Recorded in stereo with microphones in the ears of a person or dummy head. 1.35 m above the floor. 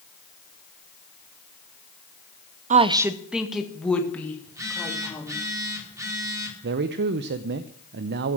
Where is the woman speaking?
35° right (ahead or behind), 0.6 m; by 5.4 s 15° left (ahead or behind), 3.5 m.